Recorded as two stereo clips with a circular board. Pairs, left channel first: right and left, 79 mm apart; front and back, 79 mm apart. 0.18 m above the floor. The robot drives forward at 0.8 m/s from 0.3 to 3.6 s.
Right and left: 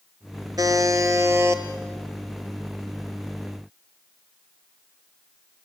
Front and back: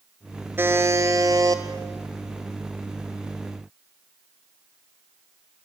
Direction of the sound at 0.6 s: 120° left.